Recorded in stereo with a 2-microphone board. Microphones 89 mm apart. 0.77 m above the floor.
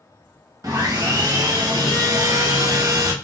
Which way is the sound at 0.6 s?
40° right (ahead or behind).